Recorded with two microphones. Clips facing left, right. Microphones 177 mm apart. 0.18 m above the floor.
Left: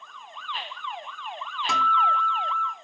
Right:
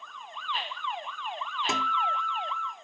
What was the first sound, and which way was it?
A guitar, 25° right (ahead or behind).